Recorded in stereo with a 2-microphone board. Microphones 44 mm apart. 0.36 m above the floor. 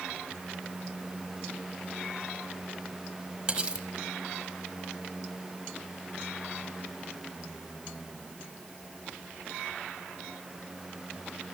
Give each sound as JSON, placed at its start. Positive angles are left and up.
{"t": 3.5, "sound": "cutlery clinking", "side_deg": -25, "distance_m": 1.1}